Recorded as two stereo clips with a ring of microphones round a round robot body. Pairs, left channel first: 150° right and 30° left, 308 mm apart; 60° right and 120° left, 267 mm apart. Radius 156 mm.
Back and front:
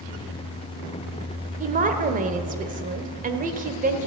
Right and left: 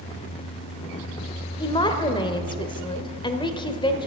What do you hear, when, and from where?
1.6 s a woman speaking: 5° right, 1.4 m